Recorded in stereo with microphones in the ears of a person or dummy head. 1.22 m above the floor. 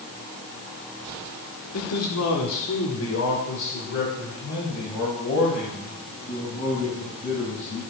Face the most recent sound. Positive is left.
turn(degrees=40)  # may be behind; listen again after turning